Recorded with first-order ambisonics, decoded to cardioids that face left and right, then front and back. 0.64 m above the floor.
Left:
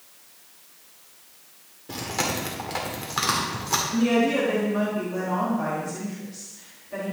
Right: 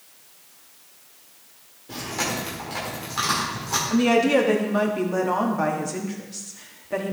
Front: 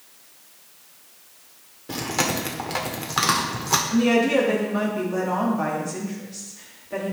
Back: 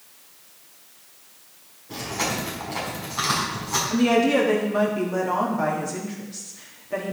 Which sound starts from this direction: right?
A woman speaking, at 3.9 s.